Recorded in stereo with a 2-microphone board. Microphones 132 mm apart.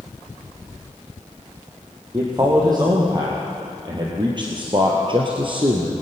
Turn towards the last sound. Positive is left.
turn(degrees=-45)  # may be behind; listen again after turning